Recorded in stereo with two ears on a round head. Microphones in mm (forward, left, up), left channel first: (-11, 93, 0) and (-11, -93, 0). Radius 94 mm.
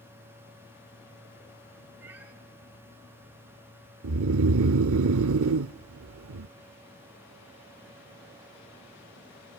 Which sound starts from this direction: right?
Snoring, at 4.0 s.